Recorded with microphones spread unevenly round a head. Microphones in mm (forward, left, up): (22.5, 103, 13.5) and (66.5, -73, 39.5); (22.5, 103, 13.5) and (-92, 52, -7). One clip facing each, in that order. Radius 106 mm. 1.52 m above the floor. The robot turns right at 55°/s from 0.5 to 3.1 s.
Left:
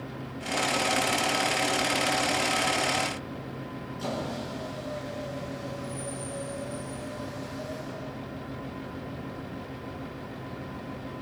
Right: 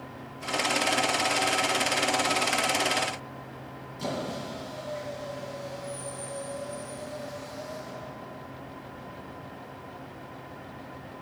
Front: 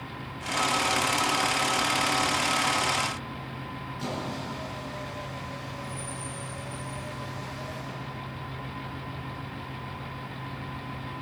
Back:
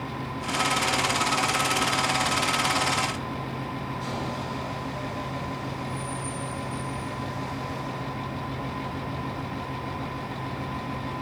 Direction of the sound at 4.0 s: 5° right.